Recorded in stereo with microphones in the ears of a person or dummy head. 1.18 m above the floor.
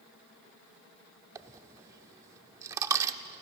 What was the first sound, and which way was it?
A dropped coin, 15° right (ahead or behind).